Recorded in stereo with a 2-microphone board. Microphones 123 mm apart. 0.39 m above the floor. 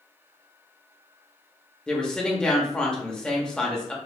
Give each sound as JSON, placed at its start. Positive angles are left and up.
{"t": 1.9, "sound": "a woman speaking", "side_deg": 5, "distance_m": 0.9}